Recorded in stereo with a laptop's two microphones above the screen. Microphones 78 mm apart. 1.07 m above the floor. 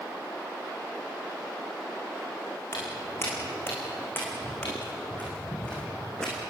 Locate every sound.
2.7 s footsteps: 35° left (ahead or behind), 5 m; by 6.5 s 5° left (ahead or behind), 4.5 m